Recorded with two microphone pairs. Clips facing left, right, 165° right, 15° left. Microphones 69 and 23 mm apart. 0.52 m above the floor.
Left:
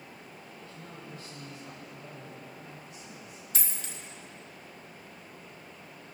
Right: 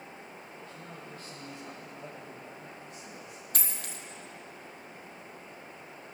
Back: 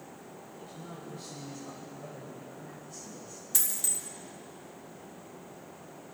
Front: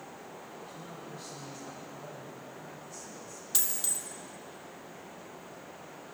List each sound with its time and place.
0.6 s a man speaking: 45° right, 4 m; by 3.5 s 100° right, 3 m
3.5 s a dropped coin: 55° right, 1.9 m